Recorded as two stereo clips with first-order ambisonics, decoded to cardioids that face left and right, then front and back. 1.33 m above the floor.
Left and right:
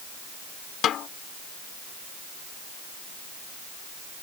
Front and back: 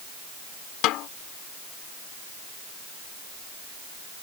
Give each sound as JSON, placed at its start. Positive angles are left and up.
{"t": 0.8, "sound": "a snare drum", "azimuth_deg": 35}